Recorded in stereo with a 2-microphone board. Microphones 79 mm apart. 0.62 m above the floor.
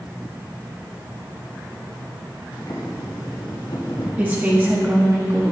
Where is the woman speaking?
25° right (ahead or behind), 0.9 m.